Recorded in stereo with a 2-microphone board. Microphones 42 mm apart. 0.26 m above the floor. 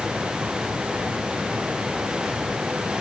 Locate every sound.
Only background noise.